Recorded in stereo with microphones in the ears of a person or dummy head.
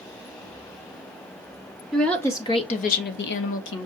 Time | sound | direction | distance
1.9 | a woman speaking | centre (ahead or behind) | 0.9 m